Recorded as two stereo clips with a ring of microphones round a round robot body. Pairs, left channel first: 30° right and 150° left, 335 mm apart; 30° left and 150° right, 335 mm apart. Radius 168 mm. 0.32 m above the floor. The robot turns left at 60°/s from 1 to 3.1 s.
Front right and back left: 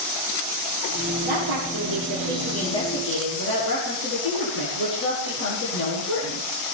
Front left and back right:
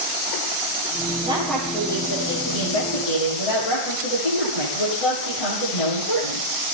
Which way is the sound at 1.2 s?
135° left.